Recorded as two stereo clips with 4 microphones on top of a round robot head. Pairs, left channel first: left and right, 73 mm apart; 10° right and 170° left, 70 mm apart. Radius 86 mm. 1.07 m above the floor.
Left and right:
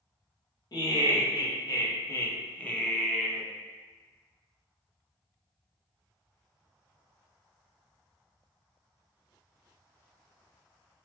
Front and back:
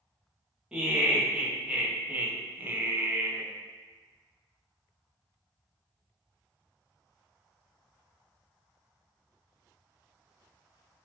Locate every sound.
0.7 s laughter: 95° left, 1.5 m; by 3.5 s 160° right, 0.8 m